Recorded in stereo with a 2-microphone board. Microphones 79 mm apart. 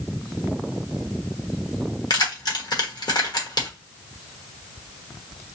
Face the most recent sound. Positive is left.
turn(degrees=60)  # may be behind; listen again after turning